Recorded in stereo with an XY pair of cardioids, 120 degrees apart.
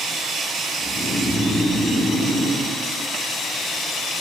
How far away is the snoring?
About 1.9 m.